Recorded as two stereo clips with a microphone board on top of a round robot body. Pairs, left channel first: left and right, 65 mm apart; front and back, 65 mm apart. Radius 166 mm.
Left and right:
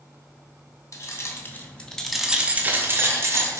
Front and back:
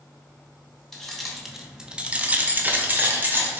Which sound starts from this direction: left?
Keys jangling, at 0.9 s.